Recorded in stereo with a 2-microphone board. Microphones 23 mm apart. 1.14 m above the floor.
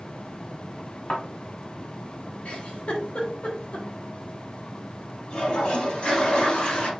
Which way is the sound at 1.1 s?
55° left (ahead or behind).